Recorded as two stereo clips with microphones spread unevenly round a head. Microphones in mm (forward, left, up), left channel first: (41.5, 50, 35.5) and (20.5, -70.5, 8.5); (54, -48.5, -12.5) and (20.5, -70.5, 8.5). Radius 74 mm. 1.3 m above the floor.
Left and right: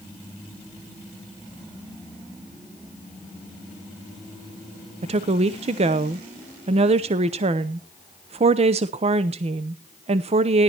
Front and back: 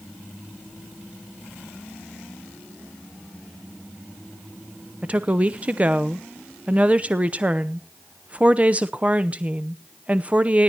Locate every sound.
5.0 s a woman speaking: 80° right, 0.7 m